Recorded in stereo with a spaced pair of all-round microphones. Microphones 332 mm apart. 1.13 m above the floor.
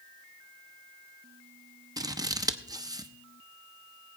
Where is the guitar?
No guitar in this recording.